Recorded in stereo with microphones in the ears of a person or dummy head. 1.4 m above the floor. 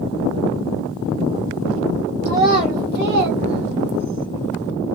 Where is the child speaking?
10° right (ahead or behind), 0.6 m; by 4.3 s 70° right (ahead or behind), 1.1 m.